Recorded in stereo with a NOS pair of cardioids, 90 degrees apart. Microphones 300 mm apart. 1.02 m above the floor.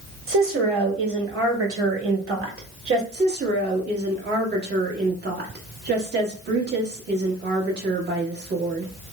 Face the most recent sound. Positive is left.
turn(degrees=-35)